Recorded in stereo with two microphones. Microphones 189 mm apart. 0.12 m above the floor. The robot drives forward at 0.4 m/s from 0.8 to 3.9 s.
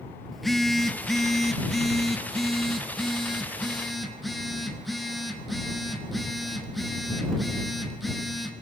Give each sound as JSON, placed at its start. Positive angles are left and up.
{"t": 0.3, "sound": "a phone buzzing", "side_deg": 0, "distance_m": 1.2}